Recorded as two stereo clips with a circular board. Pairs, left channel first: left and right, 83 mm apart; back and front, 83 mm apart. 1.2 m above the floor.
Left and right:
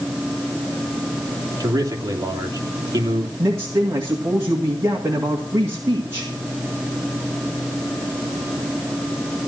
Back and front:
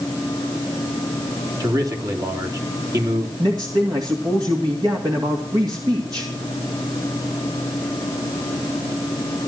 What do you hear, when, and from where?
1.6 s a man speaking: 45° right, 3 m
3.4 s a man speaking: 35° right, 2.5 m